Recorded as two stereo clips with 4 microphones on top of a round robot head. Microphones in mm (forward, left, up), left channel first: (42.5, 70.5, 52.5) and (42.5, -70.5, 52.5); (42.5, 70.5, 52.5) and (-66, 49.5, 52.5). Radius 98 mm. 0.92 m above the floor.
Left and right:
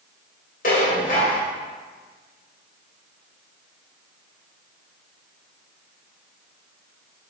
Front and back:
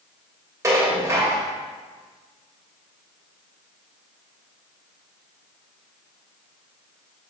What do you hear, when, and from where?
0.6 s dishes clattering: 130° left, 2.5 m